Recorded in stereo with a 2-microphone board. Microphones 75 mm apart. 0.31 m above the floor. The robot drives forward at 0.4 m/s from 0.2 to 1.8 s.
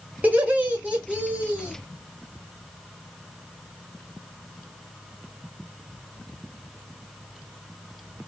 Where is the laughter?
20° right (ahead or behind), 1.5 m.